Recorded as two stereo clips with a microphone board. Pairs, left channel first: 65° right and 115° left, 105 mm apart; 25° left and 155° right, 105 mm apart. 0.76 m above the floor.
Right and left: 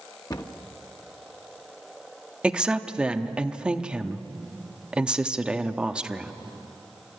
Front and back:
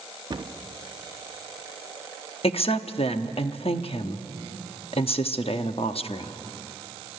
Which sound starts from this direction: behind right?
A cupboard door, at 0.3 s.